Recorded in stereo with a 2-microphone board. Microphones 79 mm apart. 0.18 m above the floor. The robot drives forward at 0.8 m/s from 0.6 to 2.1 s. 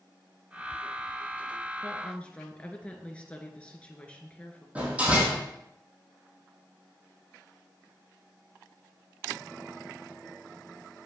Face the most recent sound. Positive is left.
turn(degrees=-15)  # may be behind; listen again after turning